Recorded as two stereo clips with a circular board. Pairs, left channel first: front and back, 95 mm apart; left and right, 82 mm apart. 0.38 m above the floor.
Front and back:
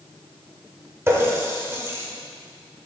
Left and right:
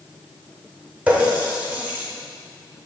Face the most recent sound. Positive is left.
turn(degrees=-145)